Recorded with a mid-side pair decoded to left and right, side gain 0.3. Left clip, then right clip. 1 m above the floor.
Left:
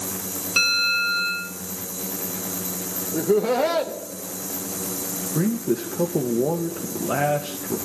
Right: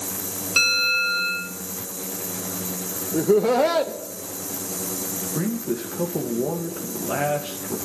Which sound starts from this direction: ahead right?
Laughter, at 3.1 s.